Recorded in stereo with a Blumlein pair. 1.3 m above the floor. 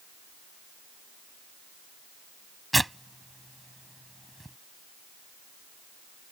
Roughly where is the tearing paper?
Ahead.